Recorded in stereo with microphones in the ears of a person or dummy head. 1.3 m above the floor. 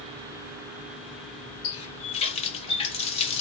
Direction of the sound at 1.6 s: 35° left (ahead or behind).